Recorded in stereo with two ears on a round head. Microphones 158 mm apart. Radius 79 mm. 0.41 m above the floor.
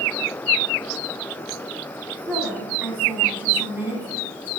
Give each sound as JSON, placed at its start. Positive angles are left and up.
{"t": 2.3, "sound": "a woman speaking", "side_deg": -10, "distance_m": 3.0}